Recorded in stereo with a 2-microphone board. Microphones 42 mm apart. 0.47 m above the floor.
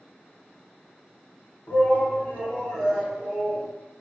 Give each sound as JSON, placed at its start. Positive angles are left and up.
{"t": 1.7, "sound": "a shout", "side_deg": 55, "distance_m": 1.2}